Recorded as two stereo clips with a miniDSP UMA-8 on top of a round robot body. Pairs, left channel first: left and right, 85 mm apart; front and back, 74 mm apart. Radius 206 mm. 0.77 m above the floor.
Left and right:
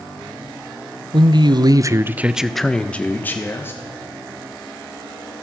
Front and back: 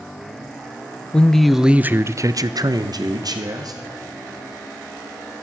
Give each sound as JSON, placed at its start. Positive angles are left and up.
{"t": 1.1, "sound": "a man speaking", "azimuth_deg": -75, "distance_m": 0.9}